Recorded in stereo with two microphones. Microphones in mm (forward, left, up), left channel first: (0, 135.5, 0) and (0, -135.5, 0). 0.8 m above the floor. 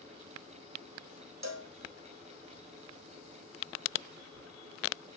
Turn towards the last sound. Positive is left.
turn(degrees=-65)  # may be behind; listen again after turning